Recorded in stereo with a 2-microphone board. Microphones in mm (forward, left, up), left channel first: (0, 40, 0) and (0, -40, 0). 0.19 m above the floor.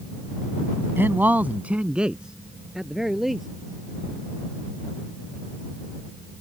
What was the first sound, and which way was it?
A man speaking, 25° right (ahead or behind).